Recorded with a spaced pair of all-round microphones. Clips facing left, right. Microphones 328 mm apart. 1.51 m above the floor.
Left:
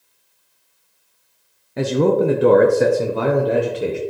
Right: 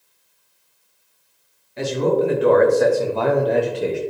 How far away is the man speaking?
About 0.9 m.